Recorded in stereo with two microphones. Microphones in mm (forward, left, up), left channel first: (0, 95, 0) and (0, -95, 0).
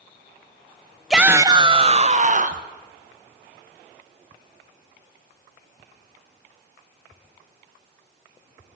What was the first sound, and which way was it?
A shout, centre (ahead or behind).